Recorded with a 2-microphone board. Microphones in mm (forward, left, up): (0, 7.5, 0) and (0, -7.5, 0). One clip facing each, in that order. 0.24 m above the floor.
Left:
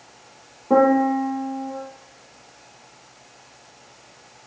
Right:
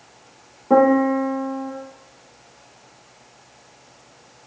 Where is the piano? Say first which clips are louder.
Right 1 dB; 20° right (ahead or behind), 3.5 m.